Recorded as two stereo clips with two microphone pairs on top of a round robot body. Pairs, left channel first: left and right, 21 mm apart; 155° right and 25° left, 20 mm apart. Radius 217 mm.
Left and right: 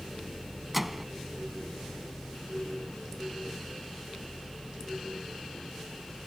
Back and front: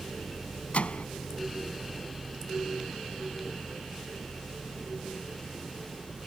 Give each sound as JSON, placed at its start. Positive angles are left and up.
{"t": 0.7, "sound": "a microwave", "azimuth_deg": -175}